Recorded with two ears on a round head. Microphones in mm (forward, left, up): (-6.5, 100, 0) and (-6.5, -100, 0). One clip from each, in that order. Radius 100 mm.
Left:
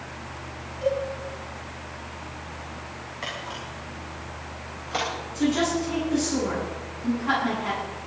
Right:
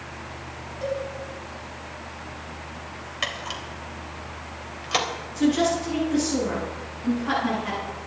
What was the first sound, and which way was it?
A cowbell, 20° right (ahead or behind).